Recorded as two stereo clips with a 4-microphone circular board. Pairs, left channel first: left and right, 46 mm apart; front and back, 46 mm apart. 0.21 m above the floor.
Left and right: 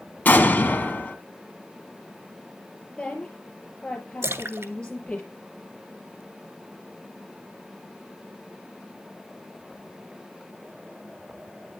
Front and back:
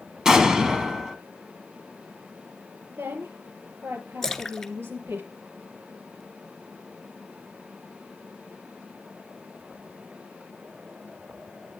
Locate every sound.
0.2 s an explosion: 110° left, 1.5 m
2.9 s a woman speaking: 160° left, 5 m
4.2 s a splash: 80° right, 0.6 m